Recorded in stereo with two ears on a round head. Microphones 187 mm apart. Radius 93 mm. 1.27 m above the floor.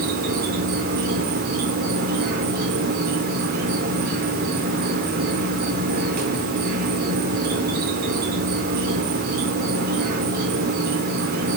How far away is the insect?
About 4.5 m.